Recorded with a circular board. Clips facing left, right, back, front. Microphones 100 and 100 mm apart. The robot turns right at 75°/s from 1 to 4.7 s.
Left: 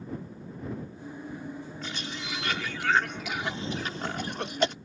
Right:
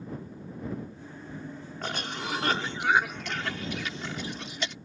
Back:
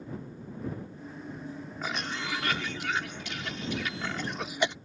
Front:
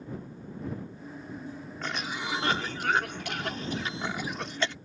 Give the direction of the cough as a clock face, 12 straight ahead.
3 o'clock.